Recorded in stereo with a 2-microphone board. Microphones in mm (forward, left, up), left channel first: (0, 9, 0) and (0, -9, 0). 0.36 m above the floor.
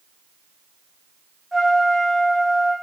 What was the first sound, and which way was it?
A trumpet, 5° right (ahead or behind).